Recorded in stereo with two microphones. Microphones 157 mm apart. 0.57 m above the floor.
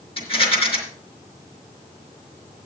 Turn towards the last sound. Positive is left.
turn(degrees=40)  # may be behind; listen again after turning